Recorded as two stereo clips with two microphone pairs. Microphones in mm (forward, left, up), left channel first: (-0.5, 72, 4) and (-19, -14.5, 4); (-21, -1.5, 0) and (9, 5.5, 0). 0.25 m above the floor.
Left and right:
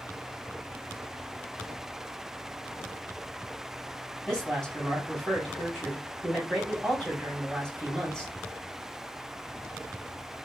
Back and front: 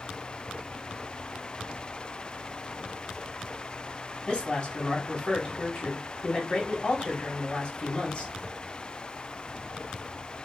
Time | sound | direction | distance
4.3 | a woman speaking | 155° left | 1.3 m